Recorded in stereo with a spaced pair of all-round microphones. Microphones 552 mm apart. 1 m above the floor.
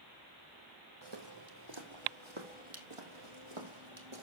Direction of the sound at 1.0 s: 50° right (ahead or behind).